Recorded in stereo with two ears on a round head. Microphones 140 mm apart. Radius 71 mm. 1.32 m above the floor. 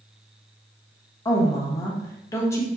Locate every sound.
1.2 s a woman speaking: 20° left (ahead or behind), 0.8 m